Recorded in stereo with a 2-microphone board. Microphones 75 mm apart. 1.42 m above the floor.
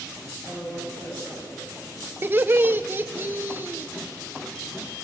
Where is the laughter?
30° right (ahead or behind), 0.9 m.